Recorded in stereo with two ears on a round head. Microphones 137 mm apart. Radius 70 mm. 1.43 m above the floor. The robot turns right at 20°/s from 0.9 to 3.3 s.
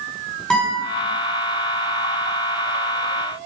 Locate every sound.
0.5 s a guitar: 5° left (ahead or behind), 3 m